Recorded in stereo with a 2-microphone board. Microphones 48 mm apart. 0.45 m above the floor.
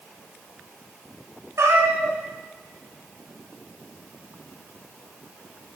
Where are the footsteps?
I don't hear footsteps.